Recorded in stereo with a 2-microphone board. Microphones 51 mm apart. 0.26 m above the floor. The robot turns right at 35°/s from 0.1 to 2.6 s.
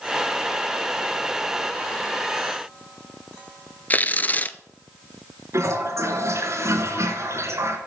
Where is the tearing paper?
35° left (ahead or behind), 0.7 m.